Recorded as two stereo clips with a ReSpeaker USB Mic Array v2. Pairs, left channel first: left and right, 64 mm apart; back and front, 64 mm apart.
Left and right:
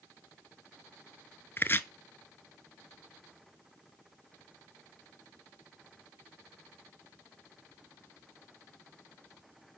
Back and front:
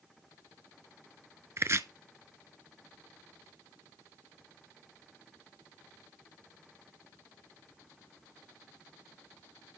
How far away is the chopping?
About 0.5 m.